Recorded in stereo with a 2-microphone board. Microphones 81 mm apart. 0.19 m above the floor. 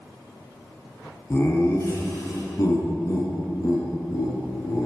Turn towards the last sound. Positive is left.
turn(degrees=50)  # may be behind; listen again after turning